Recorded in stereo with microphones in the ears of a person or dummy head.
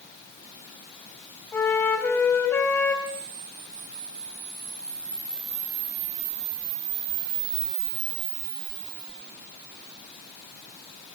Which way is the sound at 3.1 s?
55° right (ahead or behind).